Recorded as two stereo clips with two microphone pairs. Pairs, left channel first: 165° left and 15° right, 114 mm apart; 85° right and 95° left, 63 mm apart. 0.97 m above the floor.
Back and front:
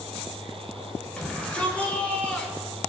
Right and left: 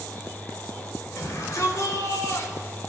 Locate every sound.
1.2 s a shout: 115° right, 4.5 m; by 2.8 s 120° right, 3 m